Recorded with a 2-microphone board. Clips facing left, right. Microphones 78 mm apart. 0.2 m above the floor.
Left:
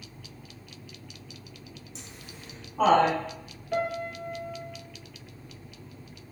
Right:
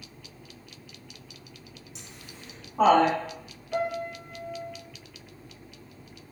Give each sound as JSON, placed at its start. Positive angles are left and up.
{"t": 1.9, "sound": "laughter", "side_deg": 35, "distance_m": 1.4}
{"t": 3.7, "sound": "a piano", "side_deg": 55, "distance_m": 0.9}